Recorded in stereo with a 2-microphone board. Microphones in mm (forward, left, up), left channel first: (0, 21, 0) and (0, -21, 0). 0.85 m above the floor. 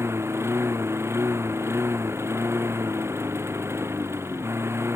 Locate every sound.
0.0 s a lawn mower: 85° right